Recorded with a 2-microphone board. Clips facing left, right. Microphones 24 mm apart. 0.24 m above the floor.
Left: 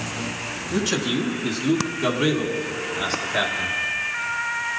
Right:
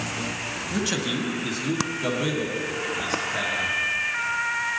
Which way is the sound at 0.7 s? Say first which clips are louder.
Left 4 dB; 5° right (ahead or behind).